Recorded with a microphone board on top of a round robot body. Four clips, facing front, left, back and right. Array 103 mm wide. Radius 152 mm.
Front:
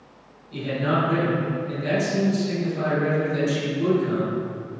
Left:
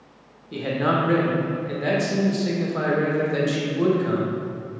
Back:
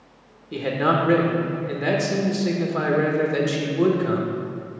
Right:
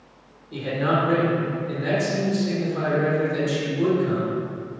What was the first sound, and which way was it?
A man speaking, 160° left.